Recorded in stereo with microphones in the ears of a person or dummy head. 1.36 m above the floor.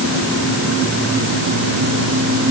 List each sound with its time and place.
Only background noise.